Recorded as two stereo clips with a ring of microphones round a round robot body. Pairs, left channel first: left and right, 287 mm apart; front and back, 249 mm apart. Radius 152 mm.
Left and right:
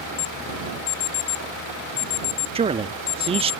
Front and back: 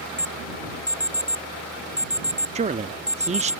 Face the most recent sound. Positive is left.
turn(degrees=-145)